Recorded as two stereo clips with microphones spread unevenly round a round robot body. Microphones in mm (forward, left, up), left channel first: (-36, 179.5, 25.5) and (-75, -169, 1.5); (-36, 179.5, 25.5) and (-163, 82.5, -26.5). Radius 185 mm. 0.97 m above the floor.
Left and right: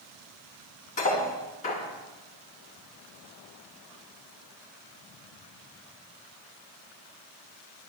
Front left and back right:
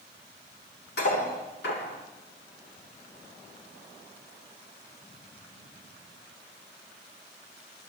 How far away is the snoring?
No snoring in this recording.